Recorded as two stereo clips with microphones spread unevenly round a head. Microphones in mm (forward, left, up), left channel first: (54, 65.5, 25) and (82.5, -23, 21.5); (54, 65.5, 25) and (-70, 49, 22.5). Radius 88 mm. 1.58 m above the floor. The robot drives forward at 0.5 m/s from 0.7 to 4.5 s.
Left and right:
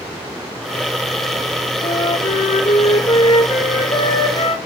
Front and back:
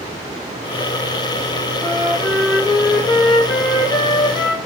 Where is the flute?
95° left, 4.5 m; by 4.5 s 110° left, 5 m.